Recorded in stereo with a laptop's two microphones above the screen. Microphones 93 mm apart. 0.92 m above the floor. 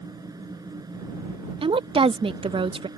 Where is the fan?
45° right (ahead or behind).